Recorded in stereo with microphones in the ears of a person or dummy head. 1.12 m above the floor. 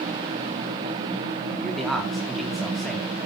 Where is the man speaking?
Centre (ahead or behind), 3 m.